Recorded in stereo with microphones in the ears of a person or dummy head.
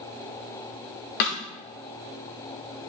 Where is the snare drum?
45° left (ahead or behind), 0.8 m.